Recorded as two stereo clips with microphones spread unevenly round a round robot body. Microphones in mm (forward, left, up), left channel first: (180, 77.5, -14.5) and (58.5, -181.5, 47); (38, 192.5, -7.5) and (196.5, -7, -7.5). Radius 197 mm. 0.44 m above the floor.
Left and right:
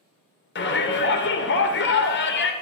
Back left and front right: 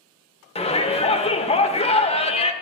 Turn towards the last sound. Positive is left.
turn(degrees=70)